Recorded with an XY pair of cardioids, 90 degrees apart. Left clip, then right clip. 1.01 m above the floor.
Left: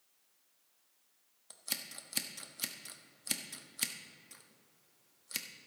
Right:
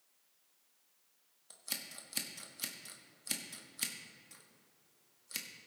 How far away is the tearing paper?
I don't hear tearing paper.